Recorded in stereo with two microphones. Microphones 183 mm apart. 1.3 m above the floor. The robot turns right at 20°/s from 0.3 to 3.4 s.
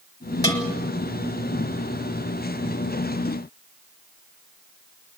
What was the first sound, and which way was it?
A bell, 20° left (ahead or behind).